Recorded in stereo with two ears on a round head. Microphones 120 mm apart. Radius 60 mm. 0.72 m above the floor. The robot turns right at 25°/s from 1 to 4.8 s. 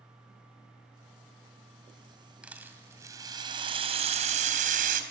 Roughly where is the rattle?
Behind.